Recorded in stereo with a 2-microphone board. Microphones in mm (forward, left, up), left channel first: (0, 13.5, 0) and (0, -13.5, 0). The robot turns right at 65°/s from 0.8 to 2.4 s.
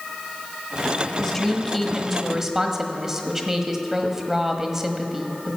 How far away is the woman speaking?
About 1.2 m.